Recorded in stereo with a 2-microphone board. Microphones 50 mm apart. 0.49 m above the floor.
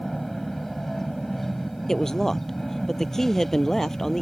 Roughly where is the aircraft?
Centre.